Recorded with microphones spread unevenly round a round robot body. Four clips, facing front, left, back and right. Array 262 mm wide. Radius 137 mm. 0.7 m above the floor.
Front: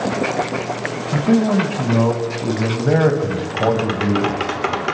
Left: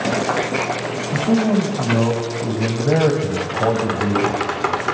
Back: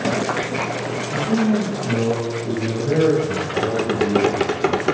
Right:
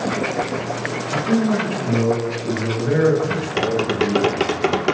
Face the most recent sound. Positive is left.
turn(degrees=-135)